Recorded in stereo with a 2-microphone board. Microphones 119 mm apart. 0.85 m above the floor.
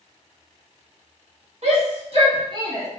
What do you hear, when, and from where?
1.6 s a shout: 60° right (ahead or behind), 1.4 m; by 2.9 s 25° right (ahead or behind), 0.7 m